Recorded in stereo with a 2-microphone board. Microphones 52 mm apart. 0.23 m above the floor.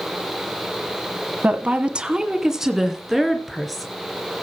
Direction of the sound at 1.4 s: 30° right (ahead or behind).